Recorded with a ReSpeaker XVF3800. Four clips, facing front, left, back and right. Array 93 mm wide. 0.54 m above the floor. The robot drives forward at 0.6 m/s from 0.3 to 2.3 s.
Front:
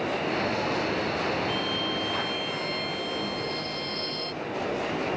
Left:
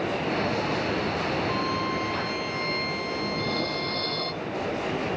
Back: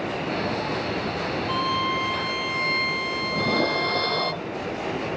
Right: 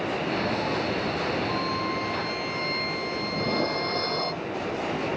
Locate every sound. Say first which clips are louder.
1.5 s a violin: left 1 dB, back 5 dB; 175° left
3.3 s dishes clattering: right 2 dB, back 9 dB; 160° right